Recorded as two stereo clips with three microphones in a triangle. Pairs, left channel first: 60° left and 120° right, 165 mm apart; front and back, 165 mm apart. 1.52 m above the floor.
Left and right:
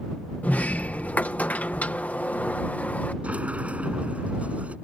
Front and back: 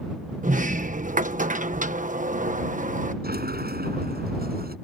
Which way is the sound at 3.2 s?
160° left.